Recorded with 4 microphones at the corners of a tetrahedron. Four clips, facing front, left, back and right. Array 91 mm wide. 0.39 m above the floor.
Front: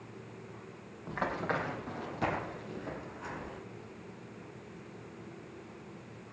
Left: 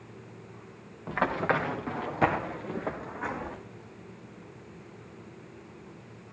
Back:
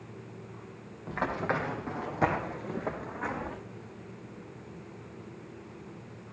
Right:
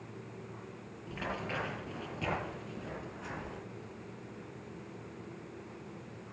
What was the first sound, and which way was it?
Running footsteps, 90° left.